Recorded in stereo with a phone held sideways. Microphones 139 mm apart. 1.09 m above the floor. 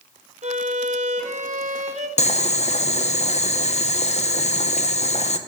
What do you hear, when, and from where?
0.4 s a violin: 55° right (ahead or behind), 0.8 m
2.2 s boiling: 50° left (ahead or behind), 0.5 m